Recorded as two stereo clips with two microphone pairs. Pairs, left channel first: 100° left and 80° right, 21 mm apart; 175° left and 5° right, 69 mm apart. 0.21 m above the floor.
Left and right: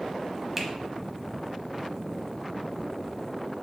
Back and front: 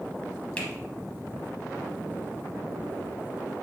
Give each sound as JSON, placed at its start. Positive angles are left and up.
{"t": 0.6, "sound": "a finger snap", "azimuth_deg": -145, "distance_m": 0.8}